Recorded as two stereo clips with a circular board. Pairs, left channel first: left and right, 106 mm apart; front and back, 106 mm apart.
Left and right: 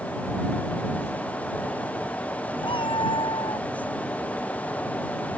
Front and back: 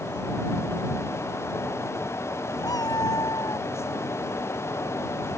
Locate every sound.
2.6 s a cat meowing: 50° left